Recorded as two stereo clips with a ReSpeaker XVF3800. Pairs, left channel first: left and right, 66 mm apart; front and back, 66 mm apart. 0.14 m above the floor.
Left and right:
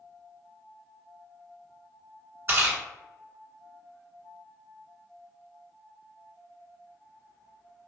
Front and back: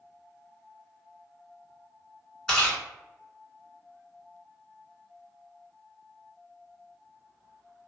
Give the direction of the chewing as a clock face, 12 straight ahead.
2 o'clock.